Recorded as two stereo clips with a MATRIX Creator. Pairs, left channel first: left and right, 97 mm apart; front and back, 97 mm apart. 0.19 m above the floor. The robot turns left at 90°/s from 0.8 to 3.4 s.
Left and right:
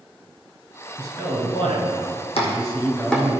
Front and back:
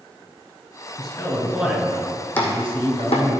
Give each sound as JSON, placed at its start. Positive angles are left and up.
{"t": 1.0, "sound": "a man speaking", "azimuth_deg": -35, "distance_m": 2.5}
{"t": 2.4, "sound": "chopping", "azimuth_deg": 75, "distance_m": 1.9}